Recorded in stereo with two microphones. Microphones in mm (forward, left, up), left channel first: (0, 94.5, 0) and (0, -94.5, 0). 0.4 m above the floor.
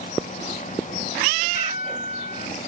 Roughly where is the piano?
Left.